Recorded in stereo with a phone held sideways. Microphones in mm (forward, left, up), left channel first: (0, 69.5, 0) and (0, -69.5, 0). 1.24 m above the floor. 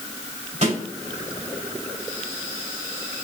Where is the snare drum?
60° right (ahead or behind), 2.5 m.